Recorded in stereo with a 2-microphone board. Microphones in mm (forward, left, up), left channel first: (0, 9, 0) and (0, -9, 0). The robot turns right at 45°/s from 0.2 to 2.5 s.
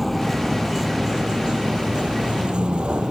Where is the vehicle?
Straight behind; by 3.1 s 75° right.